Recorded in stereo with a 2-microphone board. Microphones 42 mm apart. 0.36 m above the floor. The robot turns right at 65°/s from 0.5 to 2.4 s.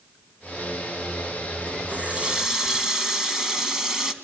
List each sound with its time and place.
1.9 s a running tap: 45° right, 1.9 m; by 4.1 s 15° right, 1.9 m